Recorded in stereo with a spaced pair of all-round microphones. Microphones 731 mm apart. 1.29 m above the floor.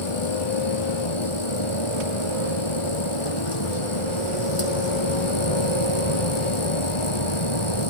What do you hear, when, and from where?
0.0 s a machine running: 40° left (ahead or behind)